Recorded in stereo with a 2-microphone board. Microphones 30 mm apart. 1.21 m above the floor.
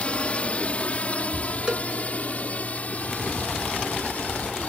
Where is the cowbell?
30° right (ahead or behind).